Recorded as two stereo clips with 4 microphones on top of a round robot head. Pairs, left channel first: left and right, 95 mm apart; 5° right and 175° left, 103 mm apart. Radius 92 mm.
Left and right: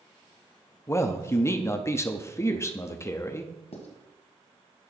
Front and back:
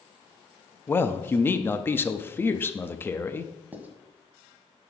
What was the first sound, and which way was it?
A man speaking, 50° left.